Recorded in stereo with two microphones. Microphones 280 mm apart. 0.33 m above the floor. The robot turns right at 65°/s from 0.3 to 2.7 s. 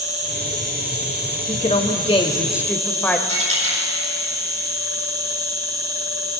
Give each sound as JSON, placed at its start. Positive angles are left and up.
{"t": 0.0, "sound": "an insect", "azimuth_deg": 35, "distance_m": 1.4}
{"t": 1.5, "sound": "a woman speaking", "side_deg": 25, "distance_m": 1.0}
{"t": 3.3, "sound": "a dropped coin", "side_deg": -50, "distance_m": 4.0}